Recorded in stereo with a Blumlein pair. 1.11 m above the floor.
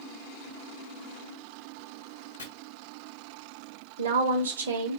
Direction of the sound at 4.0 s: 70° right.